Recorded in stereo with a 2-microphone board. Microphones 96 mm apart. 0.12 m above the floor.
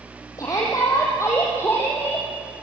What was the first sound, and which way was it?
A shout, 35° left (ahead or behind).